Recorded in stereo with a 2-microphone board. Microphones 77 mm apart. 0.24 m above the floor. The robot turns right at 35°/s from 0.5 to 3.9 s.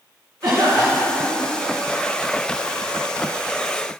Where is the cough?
105° right, 3 m; by 1.4 s 70° right, 3 m.